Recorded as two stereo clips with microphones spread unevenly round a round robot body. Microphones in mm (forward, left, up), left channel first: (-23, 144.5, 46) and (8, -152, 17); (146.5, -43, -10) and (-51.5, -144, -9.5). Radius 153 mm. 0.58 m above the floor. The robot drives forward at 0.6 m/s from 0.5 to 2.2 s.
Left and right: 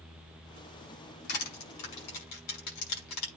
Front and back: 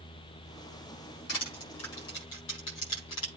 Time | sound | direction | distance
1.3 | crushing | 75° left | 6.5 m